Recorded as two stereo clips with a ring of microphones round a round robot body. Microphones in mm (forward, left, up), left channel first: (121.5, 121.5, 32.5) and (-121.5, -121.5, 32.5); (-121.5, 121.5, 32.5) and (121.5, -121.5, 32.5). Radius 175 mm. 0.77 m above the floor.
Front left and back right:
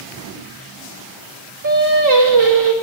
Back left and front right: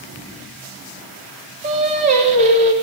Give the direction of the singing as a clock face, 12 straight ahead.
4 o'clock.